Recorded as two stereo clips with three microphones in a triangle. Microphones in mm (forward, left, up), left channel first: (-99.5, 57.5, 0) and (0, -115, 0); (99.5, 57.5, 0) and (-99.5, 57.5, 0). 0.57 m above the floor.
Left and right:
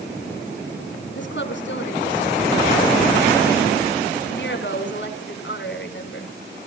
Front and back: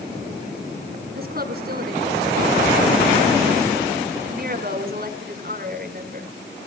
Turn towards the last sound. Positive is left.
turn(degrees=140)